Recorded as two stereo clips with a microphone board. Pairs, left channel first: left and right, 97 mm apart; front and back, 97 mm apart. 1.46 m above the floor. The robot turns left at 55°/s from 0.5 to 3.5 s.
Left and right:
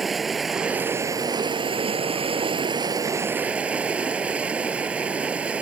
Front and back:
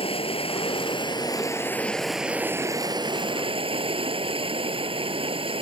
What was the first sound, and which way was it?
Running water, straight ahead.